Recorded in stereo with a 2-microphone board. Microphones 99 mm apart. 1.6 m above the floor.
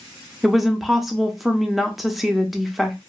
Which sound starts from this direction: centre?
A woman speaking, at 0.4 s.